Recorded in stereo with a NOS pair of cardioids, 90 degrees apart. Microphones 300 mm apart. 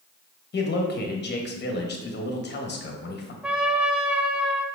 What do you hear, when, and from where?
0.5 s a man speaking: 35° left, 1.2 m
3.4 s a trumpet: 5° right, 0.7 m